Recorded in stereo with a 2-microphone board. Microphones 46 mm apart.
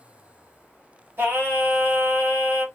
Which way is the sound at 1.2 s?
50° right (ahead or behind).